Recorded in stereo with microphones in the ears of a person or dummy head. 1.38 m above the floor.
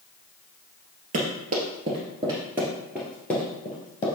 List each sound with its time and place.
1.1 s running footsteps: 40° right (ahead or behind), 1.8 m; by 4.1 s 15° left (ahead or behind), 1.6 m